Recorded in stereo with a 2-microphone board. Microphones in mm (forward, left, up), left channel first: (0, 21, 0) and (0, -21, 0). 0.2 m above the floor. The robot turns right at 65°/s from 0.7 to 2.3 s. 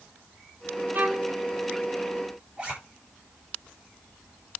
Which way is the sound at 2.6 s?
25° right (ahead or behind).